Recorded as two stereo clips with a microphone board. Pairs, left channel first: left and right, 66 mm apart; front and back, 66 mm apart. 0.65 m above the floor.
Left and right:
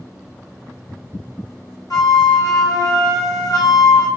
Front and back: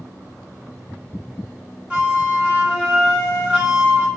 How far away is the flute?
About 1.1 m.